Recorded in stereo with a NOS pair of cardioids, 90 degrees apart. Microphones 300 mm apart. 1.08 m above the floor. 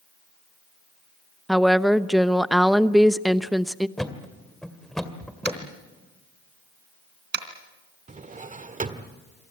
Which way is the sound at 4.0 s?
Straight ahead.